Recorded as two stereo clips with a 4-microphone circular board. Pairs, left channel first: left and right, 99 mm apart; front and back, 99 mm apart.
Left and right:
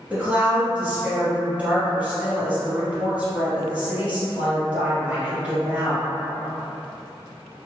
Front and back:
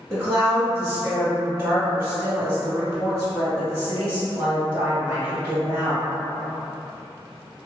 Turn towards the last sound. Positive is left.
turn(degrees=-150)